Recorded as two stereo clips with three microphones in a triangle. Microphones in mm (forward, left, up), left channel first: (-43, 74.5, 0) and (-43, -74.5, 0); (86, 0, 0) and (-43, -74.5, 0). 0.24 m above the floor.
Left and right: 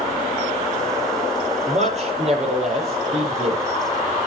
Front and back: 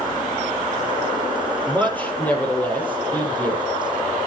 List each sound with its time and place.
1.7 s a man speaking: 50° right, 5.5 m